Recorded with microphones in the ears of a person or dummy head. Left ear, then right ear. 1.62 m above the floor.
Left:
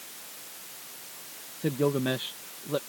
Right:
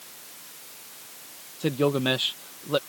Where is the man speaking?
40° right (ahead or behind).